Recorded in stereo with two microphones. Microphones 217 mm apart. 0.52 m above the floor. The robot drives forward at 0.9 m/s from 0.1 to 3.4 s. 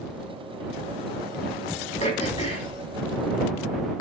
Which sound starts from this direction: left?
Throat clearing, at 2.0 s.